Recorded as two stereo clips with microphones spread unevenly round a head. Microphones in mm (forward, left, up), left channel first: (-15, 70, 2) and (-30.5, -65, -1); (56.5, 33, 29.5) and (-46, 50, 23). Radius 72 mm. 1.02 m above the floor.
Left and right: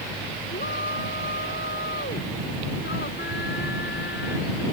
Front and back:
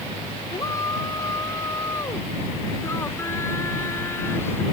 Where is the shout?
50° left; by 4.6 s 60° left.